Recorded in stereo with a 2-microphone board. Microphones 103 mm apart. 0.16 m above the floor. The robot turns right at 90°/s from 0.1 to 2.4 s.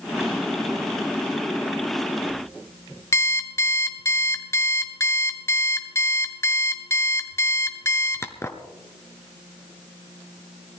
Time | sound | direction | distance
3.1 | an alarm clock | 25° left (ahead or behind) | 1.1 m